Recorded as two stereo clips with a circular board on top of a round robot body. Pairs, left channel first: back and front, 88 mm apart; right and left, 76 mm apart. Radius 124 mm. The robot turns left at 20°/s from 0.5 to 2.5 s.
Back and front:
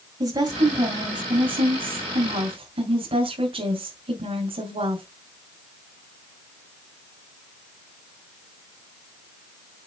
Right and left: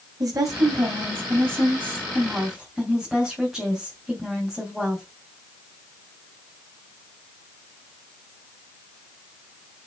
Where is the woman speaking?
40° left, 3 m; by 5.0 s straight ahead, 3 m.